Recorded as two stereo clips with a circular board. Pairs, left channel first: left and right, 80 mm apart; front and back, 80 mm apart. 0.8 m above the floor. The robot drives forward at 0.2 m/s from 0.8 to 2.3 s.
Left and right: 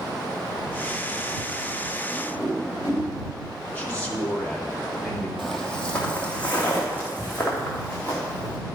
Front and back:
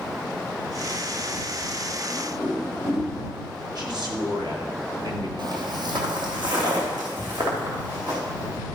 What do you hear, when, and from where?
2.1 s a whoosh: 150° left, 4 m
3.8 s a man speaking: 160° left, 2 m
5.4 s footsteps: 175° left, 1.6 m; by 8.6 s 155° left, 5.5 m